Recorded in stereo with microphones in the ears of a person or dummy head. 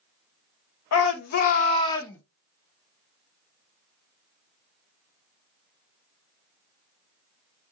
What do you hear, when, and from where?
0.9 s a shout: 80° left, 0.5 m; by 2.2 s 10° left (ahead or behind), 0.7 m